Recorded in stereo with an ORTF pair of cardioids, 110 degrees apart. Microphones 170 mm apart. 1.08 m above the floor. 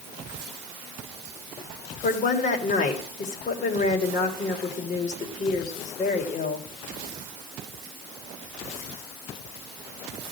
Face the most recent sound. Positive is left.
turn(degrees=45)